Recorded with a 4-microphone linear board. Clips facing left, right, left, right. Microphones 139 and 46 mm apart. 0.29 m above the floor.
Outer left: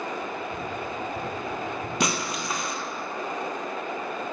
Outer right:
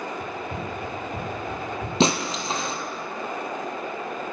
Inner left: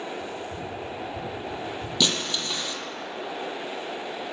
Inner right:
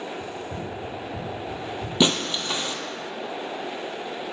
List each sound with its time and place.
0.2 s running footsteps: 55° right (ahead or behind), 2 m; by 1.9 s 70° right (ahead or behind), 3 m
2.0 s breaking glass: 25° right (ahead or behind), 0.7 m